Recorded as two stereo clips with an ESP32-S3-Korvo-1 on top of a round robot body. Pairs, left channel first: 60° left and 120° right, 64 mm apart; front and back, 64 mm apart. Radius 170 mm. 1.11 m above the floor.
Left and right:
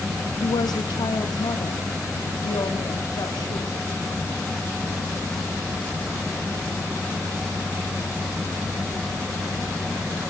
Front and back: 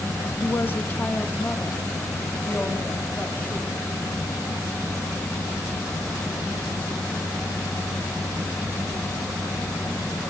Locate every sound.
0.4 s a woman speaking: 60° left, 1.1 m; by 3.8 s 70° left, 3 m